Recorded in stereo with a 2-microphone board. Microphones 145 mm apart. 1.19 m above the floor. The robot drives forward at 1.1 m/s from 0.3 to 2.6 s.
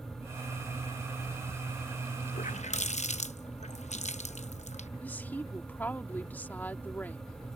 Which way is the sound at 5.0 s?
10° left (ahead or behind).